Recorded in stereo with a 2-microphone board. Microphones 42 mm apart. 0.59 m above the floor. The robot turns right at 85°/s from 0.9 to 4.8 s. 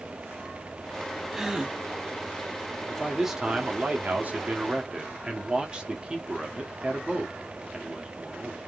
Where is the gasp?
10° right (ahead or behind), 1.0 m; by 1.8 s 25° right (ahead or behind), 1.0 m.